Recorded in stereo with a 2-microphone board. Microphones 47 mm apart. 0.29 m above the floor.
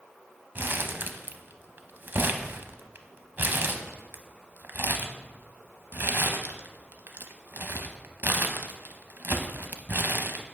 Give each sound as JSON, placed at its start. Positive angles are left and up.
{"t": 0.6, "sound": "crumpling", "side_deg": -50, "distance_m": 0.6}